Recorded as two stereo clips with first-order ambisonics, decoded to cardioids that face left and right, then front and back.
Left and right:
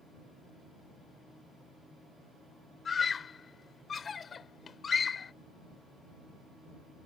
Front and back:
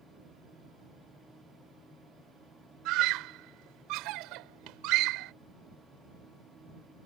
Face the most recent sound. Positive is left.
turn(degrees=160)